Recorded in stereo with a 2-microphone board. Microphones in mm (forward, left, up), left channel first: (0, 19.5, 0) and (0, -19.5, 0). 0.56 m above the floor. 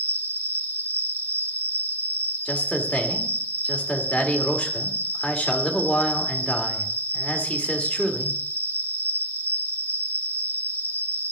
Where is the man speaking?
25° left (ahead or behind), 2.0 m.